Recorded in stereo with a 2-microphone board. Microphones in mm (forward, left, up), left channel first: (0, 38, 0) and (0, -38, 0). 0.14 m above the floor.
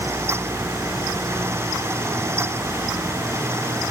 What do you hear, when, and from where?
Only background noise.